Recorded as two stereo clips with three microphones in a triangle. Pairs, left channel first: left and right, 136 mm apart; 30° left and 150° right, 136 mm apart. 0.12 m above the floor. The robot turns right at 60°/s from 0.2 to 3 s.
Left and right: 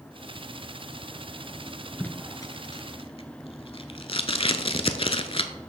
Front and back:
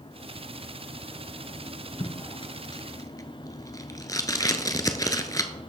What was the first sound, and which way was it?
Tape being pulled, 20° left.